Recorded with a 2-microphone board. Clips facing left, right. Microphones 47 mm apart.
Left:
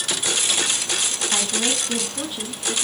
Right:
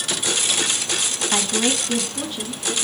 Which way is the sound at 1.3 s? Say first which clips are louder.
Right 4 dB; 20° right (ahead or behind).